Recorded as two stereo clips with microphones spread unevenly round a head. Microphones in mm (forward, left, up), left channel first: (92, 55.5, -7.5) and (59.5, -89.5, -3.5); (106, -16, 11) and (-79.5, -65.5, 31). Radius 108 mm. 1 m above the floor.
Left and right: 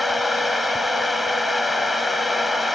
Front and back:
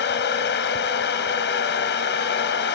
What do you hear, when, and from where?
0.0 s a fan: 15° right